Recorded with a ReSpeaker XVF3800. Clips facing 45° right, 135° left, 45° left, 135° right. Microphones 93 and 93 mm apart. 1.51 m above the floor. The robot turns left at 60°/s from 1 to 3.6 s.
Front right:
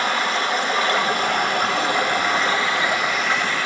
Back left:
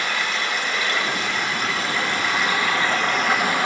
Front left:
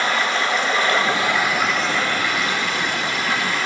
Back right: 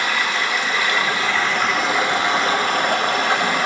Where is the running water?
Straight ahead, 2 m; by 3.7 s 160° right, 2 m.